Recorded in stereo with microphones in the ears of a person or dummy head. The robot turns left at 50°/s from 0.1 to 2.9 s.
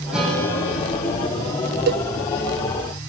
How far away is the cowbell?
About 0.9 m.